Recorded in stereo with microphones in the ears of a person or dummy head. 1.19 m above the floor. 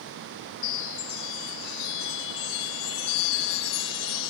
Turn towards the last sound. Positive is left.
turn(degrees=65)  # may be behind; listen again after turning